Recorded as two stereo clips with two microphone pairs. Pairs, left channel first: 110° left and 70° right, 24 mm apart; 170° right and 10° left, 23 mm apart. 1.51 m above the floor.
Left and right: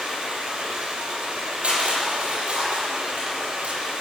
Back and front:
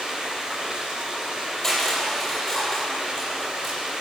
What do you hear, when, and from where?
0.0 s running water: 40° right, 3.5 m
1.6 s crushing: 95° right, 7.5 m